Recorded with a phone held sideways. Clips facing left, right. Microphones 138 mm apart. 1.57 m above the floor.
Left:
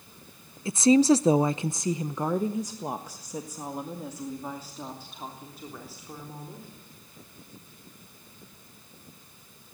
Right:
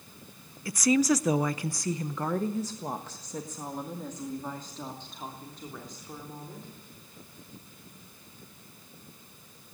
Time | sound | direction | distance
0.7 | a woman speaking | 25° left (ahead or behind) | 0.6 m